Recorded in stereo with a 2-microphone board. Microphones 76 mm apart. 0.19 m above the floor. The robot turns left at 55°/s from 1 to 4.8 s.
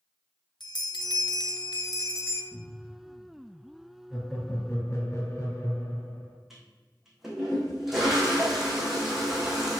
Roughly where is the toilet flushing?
Centre.